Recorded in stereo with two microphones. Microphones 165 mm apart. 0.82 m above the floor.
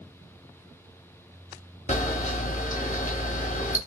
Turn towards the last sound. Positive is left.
turn(degrees=50)  # may be behind; listen again after turning